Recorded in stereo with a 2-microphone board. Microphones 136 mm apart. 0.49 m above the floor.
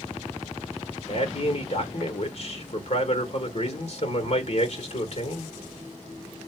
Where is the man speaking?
55° left (ahead or behind), 1.4 m.